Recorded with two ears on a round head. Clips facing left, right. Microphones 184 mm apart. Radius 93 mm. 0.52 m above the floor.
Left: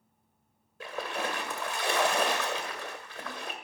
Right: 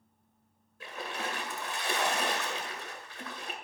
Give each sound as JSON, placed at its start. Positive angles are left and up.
{"t": 0.8, "sound": "a splash", "side_deg": 65, "distance_m": 1.8}